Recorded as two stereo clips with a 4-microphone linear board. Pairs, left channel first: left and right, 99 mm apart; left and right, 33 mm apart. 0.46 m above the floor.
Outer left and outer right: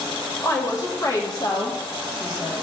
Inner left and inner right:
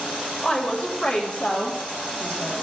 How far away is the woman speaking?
About 1.6 m.